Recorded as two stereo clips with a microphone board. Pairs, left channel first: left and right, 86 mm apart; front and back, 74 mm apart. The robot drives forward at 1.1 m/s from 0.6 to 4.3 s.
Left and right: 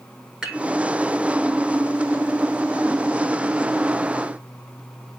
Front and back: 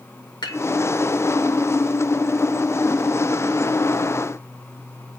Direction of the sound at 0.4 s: 10° right.